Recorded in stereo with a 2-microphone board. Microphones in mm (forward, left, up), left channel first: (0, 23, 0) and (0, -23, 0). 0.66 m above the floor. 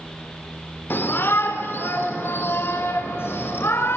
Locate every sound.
0.9 s a shout: 55° left (ahead or behind), 2 m; by 4.0 s 65° left (ahead or behind), 3.5 m